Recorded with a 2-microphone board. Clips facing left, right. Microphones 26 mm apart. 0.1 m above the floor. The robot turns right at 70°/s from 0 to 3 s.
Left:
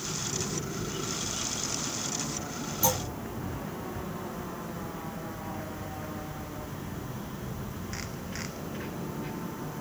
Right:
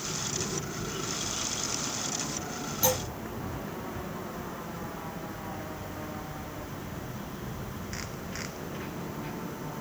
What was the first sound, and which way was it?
A clunk, 25° right (ahead or behind).